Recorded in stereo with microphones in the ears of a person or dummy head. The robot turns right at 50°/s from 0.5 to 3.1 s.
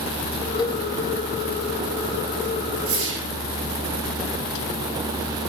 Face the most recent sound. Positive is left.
turn(degrees=-65)  # may be behind; listen again after turning